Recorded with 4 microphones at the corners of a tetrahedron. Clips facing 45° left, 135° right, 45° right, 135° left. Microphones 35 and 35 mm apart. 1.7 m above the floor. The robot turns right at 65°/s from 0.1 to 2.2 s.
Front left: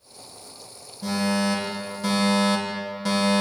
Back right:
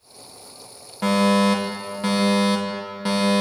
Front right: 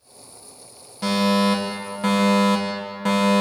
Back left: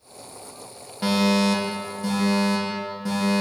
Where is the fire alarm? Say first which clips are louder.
Back right 6 dB, front right 1 dB; 145° right, 4 m; by 3.4 s 70° right, 4 m.